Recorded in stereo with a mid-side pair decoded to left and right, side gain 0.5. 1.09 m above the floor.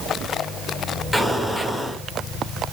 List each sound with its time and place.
1.1 s an explosion: 15° left, 2.5 m